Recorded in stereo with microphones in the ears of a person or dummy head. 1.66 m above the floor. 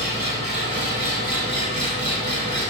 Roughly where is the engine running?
Centre.